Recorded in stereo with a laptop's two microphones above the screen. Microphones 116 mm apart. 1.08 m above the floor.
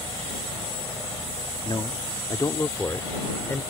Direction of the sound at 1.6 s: 50° left (ahead or behind).